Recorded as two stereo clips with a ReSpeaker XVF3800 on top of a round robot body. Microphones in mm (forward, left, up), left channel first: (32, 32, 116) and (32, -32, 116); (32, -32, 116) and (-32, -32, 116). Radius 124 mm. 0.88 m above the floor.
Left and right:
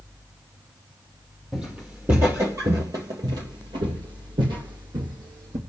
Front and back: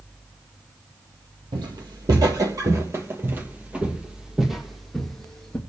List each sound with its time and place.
1.5 s footsteps: 175° right, 1.9 m; by 5.6 s 80° right, 3 m